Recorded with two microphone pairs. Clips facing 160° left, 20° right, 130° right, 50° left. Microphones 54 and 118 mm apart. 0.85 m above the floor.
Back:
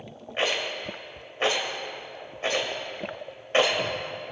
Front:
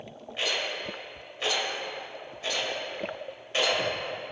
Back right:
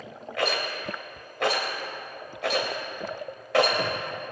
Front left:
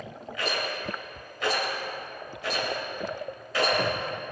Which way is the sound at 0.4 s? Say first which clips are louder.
Back 3 dB, back right 3 dB; 150° right.